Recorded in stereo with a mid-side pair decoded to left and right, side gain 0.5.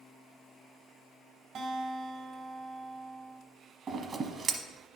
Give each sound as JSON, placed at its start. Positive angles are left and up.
{"t": 1.6, "sound": "a guitar", "azimuth_deg": -60, "distance_m": 1.3}
{"t": 3.9, "sound": "scissors", "azimuth_deg": -40, "distance_m": 1.1}